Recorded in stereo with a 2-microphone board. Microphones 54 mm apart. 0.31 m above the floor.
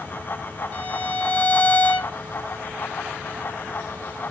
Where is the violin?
35° left (ahead or behind), 0.8 m.